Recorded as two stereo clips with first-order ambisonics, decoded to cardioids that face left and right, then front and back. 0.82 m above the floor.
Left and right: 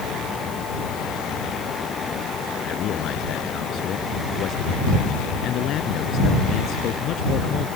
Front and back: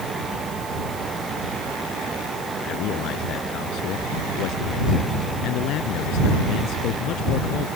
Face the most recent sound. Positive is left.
turn(degrees=40)